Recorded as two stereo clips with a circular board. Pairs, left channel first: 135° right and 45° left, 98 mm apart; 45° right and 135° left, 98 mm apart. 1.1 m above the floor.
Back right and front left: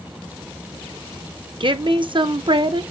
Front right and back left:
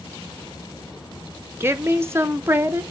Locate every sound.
1.6 s a woman speaking: 70° left, 0.7 m